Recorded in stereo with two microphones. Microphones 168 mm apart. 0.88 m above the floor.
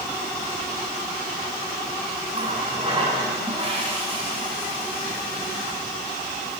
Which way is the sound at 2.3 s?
30° right (ahead or behind).